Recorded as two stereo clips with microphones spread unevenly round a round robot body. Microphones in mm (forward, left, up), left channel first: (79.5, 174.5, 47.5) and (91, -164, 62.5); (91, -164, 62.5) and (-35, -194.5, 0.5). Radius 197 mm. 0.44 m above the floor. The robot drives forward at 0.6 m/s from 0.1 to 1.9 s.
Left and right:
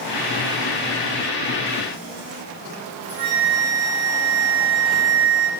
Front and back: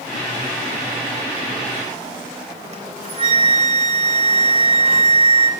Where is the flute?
130° right, 3 m.